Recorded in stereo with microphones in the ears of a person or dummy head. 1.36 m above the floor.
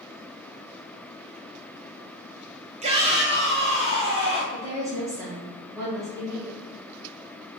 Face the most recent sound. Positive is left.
turn(degrees=-15)  # may be behind; listen again after turning